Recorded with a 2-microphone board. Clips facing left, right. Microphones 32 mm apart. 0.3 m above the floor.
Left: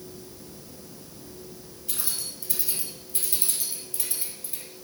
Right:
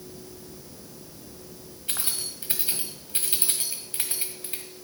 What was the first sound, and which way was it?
Keys jangling, 45° right (ahead or behind).